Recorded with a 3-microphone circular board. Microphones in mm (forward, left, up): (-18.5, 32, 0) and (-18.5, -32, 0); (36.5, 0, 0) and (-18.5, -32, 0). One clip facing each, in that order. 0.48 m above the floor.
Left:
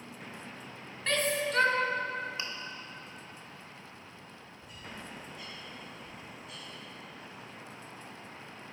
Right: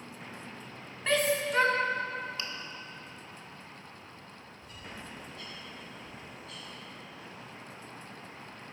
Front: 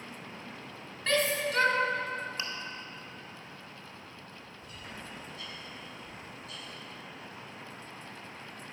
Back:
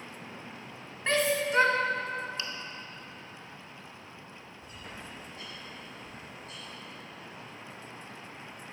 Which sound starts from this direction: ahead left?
Chewing, at 2.4 s.